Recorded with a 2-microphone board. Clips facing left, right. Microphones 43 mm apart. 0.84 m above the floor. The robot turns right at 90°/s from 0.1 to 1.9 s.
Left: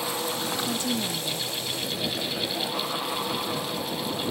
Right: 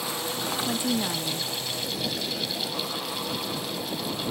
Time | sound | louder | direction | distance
0.6 | a woman speaking | right 1 dB | 170° right | ?